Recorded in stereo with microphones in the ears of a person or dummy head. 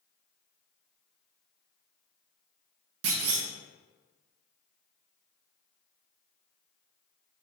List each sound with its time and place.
3.0 s a clunk: 70° right (ahead or behind), 0.6 m